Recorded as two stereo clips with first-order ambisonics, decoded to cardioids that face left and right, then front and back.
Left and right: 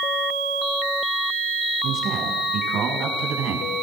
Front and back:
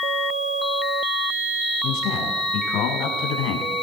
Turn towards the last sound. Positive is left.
turn(degrees=-40)